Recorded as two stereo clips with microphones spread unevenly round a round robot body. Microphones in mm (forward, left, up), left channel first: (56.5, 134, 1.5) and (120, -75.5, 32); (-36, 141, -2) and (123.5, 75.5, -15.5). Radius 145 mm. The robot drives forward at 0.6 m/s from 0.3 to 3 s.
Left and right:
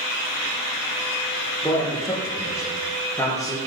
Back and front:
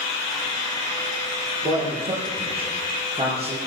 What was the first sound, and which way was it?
A man speaking, 30° left.